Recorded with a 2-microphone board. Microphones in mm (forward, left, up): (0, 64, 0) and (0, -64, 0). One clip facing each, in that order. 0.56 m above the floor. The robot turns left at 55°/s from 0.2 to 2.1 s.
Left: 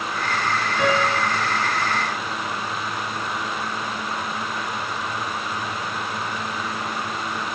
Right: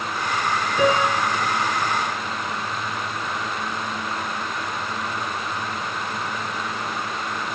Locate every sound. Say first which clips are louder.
0.8 s a piano: right 2 dB; 85° right, 3.5 m; by 1.3 s 65° right (ahead or behind), 3.5 m